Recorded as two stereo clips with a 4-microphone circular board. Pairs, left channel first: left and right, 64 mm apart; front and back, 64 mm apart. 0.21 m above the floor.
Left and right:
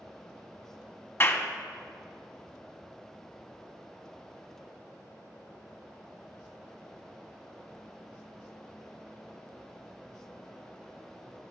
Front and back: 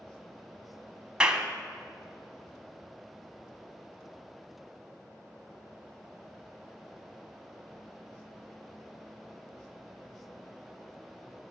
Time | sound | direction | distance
1.2 | a clap | 110° left | 1.0 m